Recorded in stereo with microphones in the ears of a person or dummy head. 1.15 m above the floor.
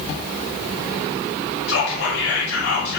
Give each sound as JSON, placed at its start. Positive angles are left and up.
{"t": 1.7, "sound": "whispering", "side_deg": 55, "distance_m": 1.3}